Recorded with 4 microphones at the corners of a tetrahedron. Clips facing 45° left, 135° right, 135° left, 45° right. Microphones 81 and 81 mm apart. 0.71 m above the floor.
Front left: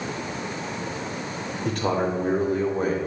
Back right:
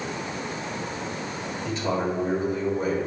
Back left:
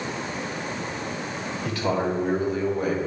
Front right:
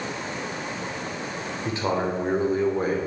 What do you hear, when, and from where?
1.6 s a man speaking: 20° left, 2.5 m; by 3.0 s 5° left, 2.5 m